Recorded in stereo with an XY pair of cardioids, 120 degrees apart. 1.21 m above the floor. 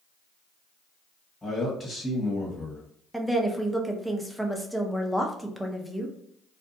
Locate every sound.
1.4 s a man speaking: 15° left, 1.4 m
3.1 s a woman speaking: 5° right, 0.6 m